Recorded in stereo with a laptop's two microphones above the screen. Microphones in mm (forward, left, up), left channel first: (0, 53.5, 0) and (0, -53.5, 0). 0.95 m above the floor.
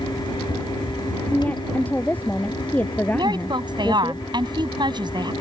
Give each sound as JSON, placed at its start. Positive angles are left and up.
{"t": 0.0, "sound": "a fan", "side_deg": 45}
{"t": 1.3, "sound": "a woman speaking", "side_deg": 15}
{"t": 3.1, "sound": "a woman speaking", "side_deg": -45}